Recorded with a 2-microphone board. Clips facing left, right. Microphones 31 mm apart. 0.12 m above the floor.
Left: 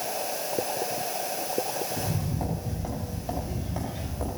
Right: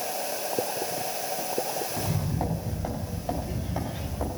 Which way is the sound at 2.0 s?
15° right (ahead or behind).